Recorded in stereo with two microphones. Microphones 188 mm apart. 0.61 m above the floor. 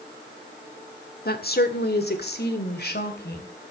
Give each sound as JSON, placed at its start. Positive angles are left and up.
{"t": 1.2, "sound": "a woman speaking", "side_deg": 55, "distance_m": 1.5}